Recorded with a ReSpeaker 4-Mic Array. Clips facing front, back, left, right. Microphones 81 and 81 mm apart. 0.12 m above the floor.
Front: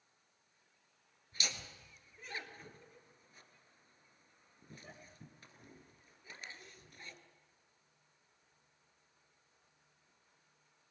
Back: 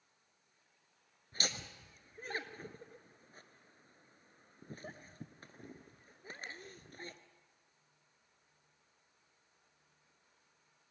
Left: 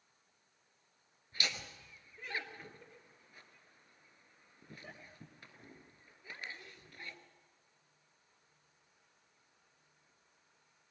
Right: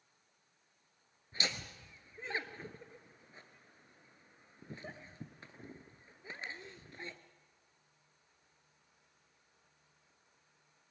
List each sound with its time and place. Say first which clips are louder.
1.3 s laughter: back 3 dB, right 1 dB; 150° right, 1.6 m